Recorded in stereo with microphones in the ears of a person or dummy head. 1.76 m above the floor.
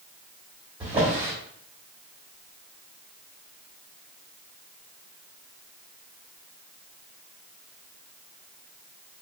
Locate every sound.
0.8 s a drawer: 10° right (ahead or behind), 1.4 m